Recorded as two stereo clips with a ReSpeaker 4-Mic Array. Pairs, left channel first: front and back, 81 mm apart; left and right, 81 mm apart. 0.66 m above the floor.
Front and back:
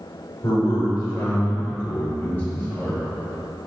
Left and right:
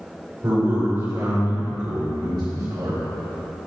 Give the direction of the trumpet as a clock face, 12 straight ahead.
No trumpet in this recording.